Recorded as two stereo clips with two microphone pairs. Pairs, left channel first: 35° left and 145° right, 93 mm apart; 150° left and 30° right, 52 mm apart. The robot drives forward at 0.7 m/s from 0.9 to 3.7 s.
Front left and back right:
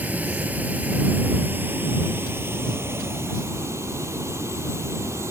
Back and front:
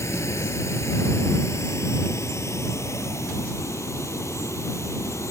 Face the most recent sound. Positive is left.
turn(degrees=155)